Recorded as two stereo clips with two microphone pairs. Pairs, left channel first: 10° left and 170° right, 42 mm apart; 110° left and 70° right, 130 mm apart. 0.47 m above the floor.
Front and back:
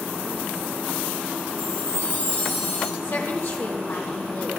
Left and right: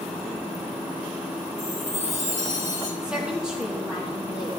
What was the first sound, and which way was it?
A chime, 35° right.